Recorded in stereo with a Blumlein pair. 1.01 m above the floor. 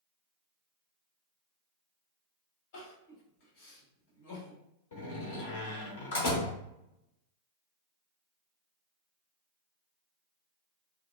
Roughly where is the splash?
I don't hear a splash.